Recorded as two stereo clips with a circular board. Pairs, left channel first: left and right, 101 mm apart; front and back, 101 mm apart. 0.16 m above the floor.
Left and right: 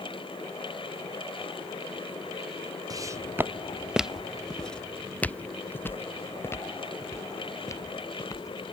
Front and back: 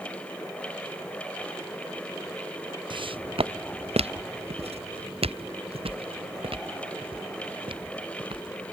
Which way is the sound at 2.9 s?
145° right.